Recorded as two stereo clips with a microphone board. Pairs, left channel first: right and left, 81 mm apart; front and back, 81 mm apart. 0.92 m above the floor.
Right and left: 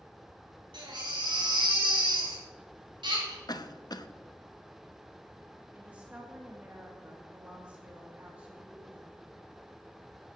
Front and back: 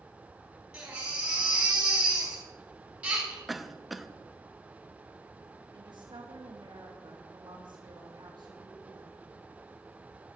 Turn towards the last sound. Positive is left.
turn(degrees=160)